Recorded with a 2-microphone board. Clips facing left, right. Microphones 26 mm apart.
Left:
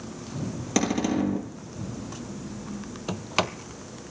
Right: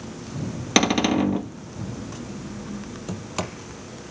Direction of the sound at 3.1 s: 35° left (ahead or behind).